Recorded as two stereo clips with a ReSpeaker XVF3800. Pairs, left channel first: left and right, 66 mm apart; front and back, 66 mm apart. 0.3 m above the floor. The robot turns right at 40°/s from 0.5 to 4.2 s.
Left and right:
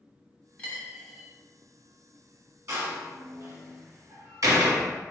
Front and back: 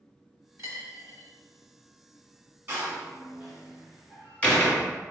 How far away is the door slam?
About 1.5 m.